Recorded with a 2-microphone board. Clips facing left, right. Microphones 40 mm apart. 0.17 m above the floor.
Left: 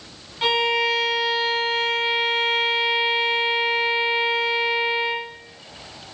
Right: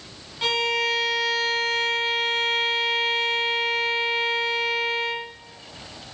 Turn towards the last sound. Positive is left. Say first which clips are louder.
# left 3 dB
turn(degrees=15)  # may be behind; listen again after turning